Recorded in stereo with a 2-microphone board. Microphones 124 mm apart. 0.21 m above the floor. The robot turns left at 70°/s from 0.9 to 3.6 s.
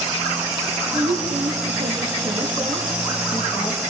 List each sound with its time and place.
0.9 s a woman speaking: 45° right, 5 m; by 3.8 s 130° left, 5 m